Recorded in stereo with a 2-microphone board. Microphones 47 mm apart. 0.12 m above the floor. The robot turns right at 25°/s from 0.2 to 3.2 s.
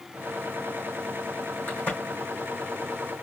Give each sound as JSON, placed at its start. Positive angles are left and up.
{"t": 1.7, "sound": "a crack", "side_deg": 40, "distance_m": 3.0}